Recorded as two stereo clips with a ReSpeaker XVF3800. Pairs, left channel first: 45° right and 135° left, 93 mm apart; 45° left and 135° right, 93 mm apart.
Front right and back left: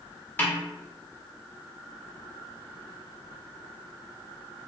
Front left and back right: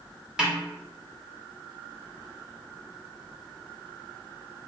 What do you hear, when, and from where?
0.4 s a snare drum: 65° right, 0.9 m